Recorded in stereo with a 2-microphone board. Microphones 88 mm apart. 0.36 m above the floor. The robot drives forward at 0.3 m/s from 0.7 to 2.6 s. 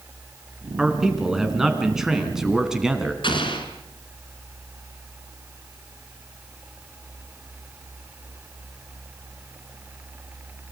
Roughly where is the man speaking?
Centre.